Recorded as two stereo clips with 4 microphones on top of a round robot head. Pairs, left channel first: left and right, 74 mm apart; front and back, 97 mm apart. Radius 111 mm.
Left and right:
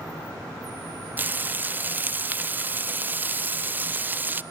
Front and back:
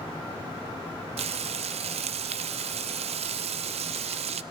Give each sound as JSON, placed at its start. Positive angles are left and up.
{"t": 1.2, "sound": "frying", "azimuth_deg": -160, "distance_m": 0.5}